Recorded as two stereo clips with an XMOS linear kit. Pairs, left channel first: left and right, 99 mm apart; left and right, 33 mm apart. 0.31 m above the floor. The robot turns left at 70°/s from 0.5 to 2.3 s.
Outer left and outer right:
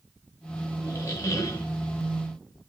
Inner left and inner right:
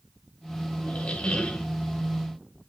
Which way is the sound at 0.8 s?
105° left.